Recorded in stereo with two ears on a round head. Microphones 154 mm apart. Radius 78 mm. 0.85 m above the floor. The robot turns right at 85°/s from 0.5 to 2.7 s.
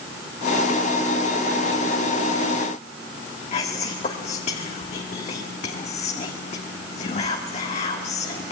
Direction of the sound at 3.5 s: 40° left (ahead or behind).